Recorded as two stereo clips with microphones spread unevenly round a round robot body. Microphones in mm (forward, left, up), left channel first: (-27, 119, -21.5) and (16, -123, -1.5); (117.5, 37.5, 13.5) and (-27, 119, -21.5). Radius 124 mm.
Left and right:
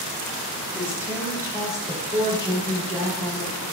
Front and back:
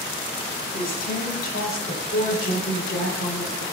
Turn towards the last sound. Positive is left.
turn(degrees=-20)